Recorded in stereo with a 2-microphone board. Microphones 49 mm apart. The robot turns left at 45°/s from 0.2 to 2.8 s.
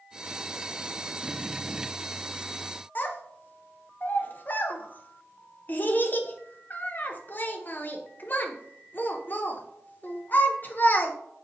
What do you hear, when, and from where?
3.0 s a child speaking: 40° left (ahead or behind), 0.6 m